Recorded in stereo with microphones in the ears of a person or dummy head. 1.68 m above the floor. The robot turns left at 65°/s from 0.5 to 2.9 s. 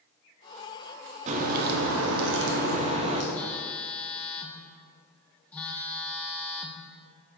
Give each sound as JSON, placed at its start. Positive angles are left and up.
{"t": 1.3, "sound": "a crack", "azimuth_deg": -35, "distance_m": 0.8}
{"t": 3.3, "sound": "a phone buzzing", "side_deg": 10, "distance_m": 0.6}